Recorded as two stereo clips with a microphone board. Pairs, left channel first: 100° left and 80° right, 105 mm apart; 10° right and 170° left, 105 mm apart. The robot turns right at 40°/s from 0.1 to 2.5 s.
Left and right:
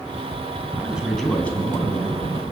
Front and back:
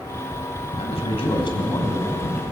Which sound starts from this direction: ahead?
A man speaking, at 0.8 s.